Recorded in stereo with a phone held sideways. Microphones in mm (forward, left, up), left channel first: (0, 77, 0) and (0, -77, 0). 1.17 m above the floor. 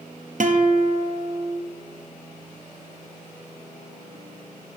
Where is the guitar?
60° right (ahead or behind), 0.7 m.